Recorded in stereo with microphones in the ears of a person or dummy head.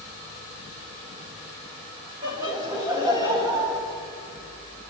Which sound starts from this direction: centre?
Laughter, at 2.2 s.